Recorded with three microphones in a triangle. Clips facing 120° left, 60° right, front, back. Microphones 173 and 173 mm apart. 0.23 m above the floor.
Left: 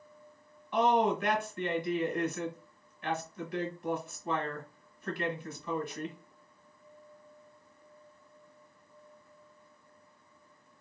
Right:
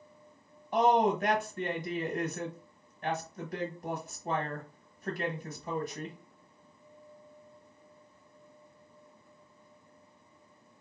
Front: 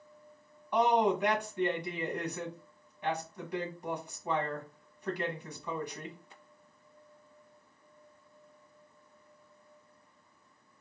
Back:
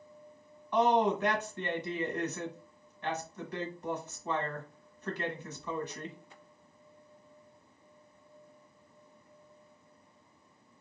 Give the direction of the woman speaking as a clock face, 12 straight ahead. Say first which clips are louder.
Right 1 dB, even; 2 o'clock.